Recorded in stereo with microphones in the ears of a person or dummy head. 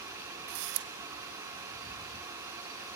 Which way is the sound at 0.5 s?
60° right (ahead or behind).